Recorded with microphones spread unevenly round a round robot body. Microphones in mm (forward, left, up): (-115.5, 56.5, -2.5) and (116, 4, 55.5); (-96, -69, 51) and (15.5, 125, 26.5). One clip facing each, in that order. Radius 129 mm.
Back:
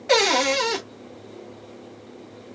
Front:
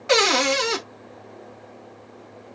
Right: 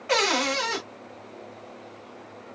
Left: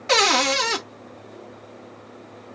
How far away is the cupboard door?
About 0.6 m.